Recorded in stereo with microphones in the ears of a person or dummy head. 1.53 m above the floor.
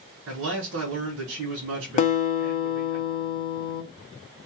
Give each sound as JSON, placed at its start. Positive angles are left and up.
{"t": 0.3, "sound": "a man speaking", "side_deg": -80, "distance_m": 1.6}
{"t": 2.0, "sound": "a guitar", "side_deg": 40, "distance_m": 0.6}